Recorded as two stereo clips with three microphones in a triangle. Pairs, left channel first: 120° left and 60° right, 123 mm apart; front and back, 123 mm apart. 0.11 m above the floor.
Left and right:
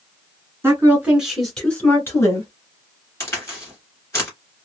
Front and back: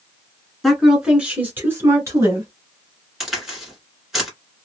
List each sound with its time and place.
0.6 s a woman speaking: 90° right, 1.4 m; by 2.5 s 150° left, 1.5 m
3.2 s a crack: 95° left, 1.9 m